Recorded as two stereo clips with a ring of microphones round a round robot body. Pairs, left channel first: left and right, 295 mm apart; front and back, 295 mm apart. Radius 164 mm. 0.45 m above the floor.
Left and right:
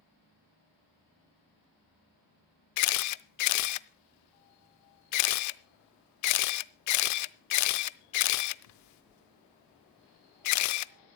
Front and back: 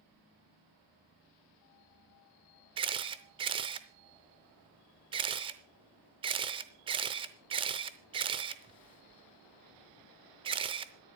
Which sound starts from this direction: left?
A camera shutter, at 2.8 s.